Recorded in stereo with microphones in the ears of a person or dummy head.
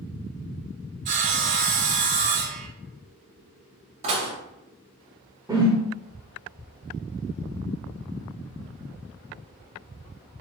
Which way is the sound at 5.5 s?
15° right (ahead or behind).